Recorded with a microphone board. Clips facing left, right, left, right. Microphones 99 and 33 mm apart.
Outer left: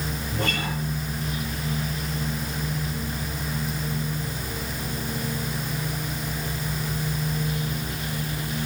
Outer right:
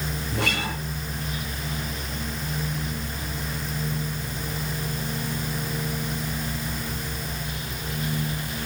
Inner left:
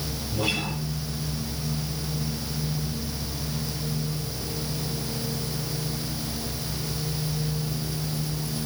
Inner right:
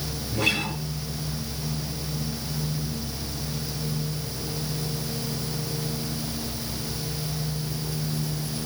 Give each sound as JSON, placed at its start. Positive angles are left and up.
{"t": 0.3, "sound": "a guitar", "side_deg": -75, "distance_m": 5.5}